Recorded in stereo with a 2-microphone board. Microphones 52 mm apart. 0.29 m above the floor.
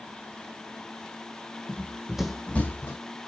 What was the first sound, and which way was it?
Running footsteps, 50° right (ahead or behind).